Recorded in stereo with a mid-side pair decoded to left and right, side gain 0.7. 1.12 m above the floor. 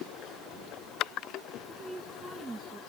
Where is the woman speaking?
15° right.